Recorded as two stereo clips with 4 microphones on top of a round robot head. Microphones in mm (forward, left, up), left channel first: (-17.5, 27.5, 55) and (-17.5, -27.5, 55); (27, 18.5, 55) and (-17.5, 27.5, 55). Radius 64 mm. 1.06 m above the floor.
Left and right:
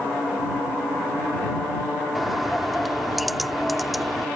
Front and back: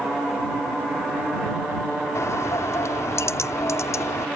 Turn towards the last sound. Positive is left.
turn(degrees=0)